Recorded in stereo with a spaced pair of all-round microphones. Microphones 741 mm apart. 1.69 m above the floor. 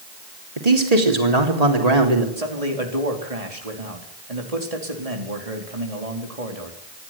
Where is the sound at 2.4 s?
50° right (ahead or behind), 4.5 m.